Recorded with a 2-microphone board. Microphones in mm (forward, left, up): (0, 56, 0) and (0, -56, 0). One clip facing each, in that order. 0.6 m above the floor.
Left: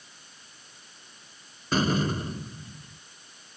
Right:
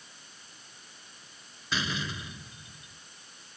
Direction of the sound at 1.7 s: 45° left (ahead or behind).